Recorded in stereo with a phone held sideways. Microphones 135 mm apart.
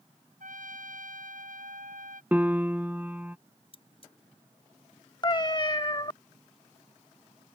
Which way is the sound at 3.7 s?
45° left (ahead or behind).